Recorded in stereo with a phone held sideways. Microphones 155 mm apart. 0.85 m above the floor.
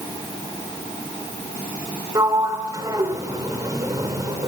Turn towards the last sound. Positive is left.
turn(degrees=-25)  # may be behind; listen again after turning